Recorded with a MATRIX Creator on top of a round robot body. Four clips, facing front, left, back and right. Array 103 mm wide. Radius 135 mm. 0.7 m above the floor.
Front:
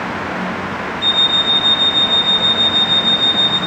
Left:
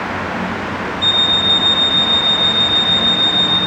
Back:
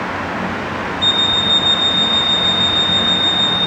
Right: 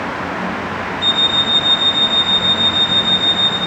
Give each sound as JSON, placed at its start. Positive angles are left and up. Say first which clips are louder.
{"t": 1.0, "sound": "an alarm clock", "louder": "even, back 1 dB", "azimuth_deg": 155, "distance_m": 5.0}